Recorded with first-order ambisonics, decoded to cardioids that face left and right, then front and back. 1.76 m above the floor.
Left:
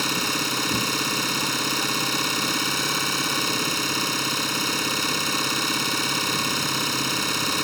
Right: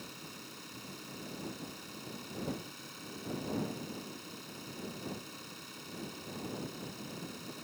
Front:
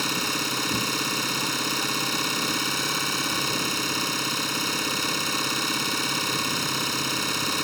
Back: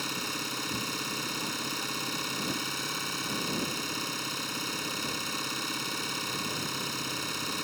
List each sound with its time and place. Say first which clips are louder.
0.0 s an engine running: left 24 dB, front 8 dB; 70° left